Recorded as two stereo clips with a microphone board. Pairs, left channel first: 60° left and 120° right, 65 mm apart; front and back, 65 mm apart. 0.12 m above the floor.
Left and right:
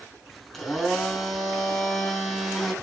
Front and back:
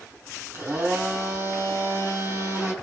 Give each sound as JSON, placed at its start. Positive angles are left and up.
{"t": 0.5, "sound": "a blender", "azimuth_deg": 150, "distance_m": 3.0}